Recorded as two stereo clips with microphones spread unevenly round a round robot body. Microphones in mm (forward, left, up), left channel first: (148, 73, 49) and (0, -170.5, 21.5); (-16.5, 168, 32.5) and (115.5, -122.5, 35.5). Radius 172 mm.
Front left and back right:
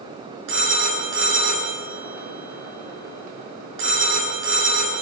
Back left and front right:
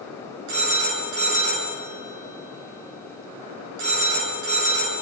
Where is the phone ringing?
110° right, 6 m.